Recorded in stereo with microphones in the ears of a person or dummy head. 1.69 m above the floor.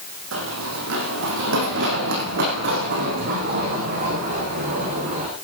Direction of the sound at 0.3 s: 70° right (ahead or behind).